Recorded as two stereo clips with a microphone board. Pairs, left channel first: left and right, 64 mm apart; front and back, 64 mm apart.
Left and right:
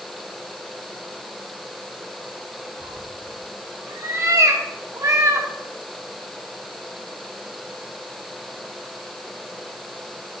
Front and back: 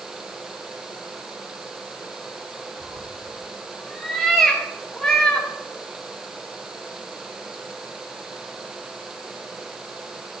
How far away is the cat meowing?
About 3 m.